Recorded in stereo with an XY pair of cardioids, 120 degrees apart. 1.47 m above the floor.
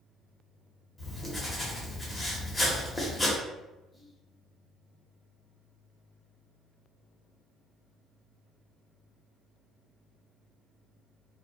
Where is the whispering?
10° left, 0.8 m.